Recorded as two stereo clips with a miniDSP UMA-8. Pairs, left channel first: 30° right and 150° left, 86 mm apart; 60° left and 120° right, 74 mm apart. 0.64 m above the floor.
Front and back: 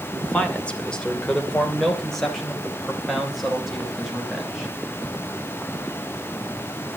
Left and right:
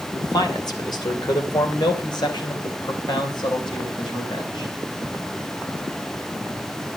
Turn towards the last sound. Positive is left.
turn(degrees=60)